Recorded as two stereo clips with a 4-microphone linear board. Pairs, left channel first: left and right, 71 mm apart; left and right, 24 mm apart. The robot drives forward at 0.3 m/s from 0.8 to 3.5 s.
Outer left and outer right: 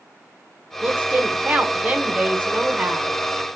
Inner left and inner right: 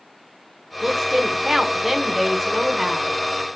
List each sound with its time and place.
0.8 s a woman speaking: 20° right (ahead or behind), 0.8 m; by 3.1 s 15° right (ahead or behind), 1.1 m